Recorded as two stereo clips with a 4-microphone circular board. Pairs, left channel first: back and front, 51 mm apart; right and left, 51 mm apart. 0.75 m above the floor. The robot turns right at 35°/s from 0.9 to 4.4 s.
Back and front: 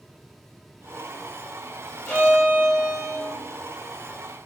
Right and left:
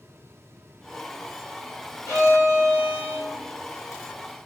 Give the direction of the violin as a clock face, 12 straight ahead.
4 o'clock.